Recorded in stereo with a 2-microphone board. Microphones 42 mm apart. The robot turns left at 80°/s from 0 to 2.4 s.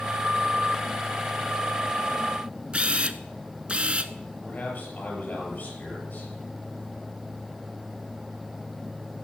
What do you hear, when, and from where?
2.7 s a camera shutter: 30° right (ahead or behind), 0.5 m
4.4 s a man speaking: 40° left (ahead or behind), 5.5 m